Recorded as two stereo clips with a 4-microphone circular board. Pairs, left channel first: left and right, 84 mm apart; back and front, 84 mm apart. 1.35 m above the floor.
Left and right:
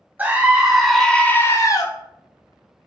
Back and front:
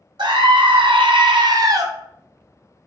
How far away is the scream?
About 0.9 m.